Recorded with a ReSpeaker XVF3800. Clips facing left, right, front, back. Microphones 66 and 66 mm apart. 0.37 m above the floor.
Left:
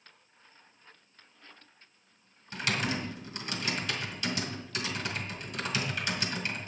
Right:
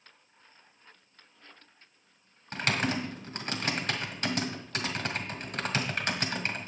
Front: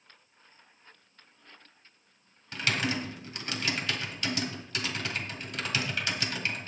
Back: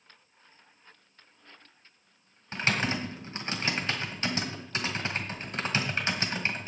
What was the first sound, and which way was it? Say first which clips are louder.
Typing on a keyboard: right 2 dB, back 1 dB; 125° right.